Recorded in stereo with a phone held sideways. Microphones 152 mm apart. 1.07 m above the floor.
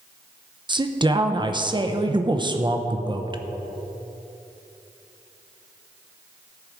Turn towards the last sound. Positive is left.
turn(degrees=-30)  # may be behind; listen again after turning